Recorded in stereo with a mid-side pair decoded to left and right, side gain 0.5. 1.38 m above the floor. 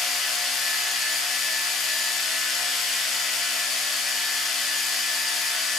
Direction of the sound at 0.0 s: 70° left.